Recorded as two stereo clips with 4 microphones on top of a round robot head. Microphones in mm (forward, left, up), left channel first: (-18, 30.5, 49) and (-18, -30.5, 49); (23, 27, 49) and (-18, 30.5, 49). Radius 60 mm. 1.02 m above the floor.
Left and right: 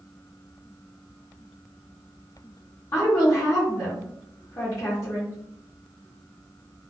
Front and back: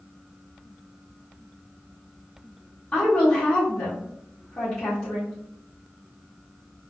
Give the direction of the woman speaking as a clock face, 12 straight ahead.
10 o'clock.